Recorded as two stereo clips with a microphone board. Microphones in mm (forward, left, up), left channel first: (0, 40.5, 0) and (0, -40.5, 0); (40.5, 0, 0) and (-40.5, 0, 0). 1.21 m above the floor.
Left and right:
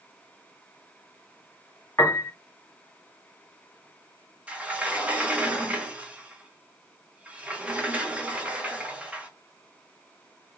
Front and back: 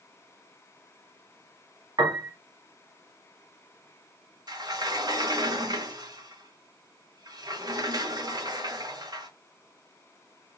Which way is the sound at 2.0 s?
155° left.